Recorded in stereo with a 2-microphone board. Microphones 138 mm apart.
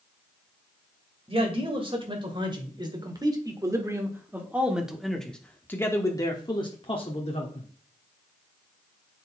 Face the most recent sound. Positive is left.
turn(degrees=50)  # may be behind; listen again after turning